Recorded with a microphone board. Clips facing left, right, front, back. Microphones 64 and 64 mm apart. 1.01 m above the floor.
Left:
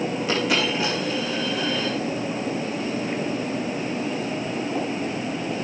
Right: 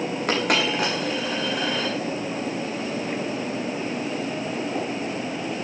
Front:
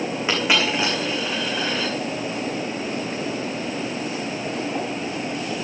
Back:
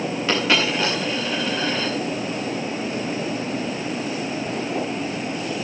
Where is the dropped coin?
70° right, 4 m.